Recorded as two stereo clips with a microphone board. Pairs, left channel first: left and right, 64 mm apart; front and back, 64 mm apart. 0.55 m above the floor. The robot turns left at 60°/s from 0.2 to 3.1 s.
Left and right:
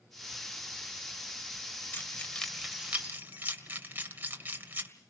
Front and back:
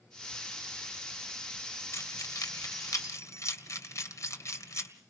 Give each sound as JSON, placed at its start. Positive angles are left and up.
{"t": 1.9, "sound": "keys jangling", "azimuth_deg": 40, "distance_m": 2.0}